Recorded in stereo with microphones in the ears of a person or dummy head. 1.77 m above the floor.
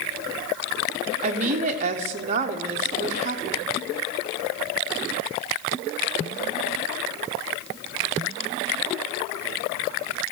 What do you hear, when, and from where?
1.2 s a woman speaking: 40° right (ahead or behind), 0.9 m